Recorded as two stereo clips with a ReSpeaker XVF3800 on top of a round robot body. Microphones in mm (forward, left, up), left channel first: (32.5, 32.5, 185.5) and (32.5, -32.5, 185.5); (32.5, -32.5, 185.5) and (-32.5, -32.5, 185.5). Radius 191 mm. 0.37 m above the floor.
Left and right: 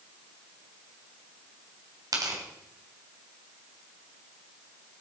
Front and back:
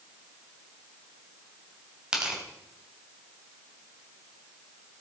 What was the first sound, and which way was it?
Tearing paper, 105° right.